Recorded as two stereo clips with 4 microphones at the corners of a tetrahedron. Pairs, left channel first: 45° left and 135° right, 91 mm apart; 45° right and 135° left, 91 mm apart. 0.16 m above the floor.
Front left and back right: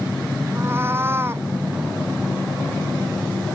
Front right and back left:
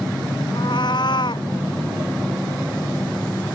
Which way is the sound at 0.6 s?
75° right.